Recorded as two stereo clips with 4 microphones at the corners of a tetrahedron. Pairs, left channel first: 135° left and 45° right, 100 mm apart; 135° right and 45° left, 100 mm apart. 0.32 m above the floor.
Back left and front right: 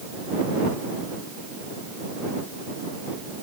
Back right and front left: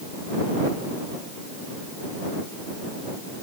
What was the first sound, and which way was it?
Only background noise.